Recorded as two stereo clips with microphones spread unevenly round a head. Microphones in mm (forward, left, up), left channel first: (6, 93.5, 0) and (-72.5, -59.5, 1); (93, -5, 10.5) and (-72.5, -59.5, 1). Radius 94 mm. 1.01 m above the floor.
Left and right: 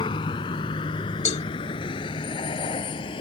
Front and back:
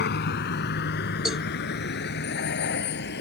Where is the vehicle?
5° right.